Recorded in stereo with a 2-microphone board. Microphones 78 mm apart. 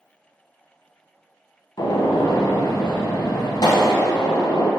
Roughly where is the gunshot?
Left.